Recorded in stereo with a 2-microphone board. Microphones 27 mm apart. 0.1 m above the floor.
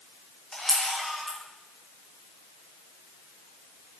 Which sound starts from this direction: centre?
A camera shutter, at 0.5 s.